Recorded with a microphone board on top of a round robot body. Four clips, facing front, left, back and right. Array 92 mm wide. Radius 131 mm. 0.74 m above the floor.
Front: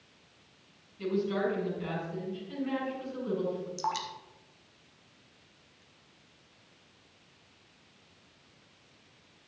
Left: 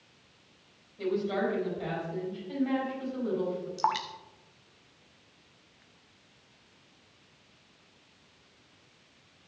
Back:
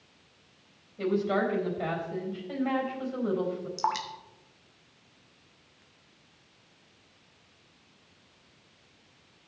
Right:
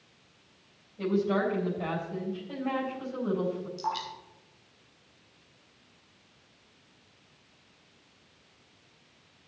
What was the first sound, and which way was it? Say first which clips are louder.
A woman speaking: right 2 dB, back 3 dB; 165° right.